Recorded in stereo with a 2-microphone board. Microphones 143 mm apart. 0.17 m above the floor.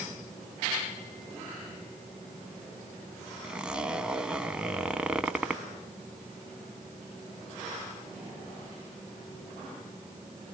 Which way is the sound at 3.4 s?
5° right (ahead or behind).